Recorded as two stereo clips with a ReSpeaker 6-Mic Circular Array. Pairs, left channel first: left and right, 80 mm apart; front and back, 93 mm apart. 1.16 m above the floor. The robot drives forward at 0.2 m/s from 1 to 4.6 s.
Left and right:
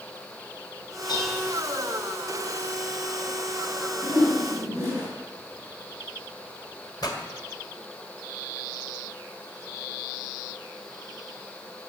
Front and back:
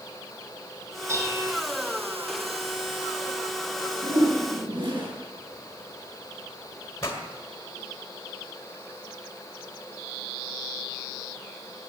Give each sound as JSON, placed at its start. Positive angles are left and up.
{"t": 1.1, "sound": "dishes clattering", "azimuth_deg": 120, "distance_m": 5.0}
{"t": 4.0, "sound": "a whoosh", "azimuth_deg": -150, "distance_m": 7.5}
{"t": 7.0, "sound": "a pop", "azimuth_deg": 55, "distance_m": 1.9}